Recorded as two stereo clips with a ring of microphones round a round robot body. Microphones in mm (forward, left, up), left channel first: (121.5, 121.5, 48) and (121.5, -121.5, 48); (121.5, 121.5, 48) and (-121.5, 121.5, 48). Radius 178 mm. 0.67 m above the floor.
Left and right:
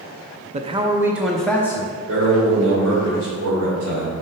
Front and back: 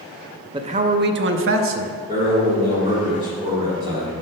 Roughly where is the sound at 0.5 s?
Behind right.